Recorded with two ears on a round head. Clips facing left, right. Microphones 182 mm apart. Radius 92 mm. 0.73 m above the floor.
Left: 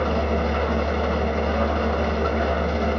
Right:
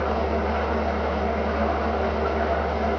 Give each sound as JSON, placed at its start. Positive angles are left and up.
{"t": 0.0, "sound": "an engine running", "side_deg": 55, "distance_m": 2.5}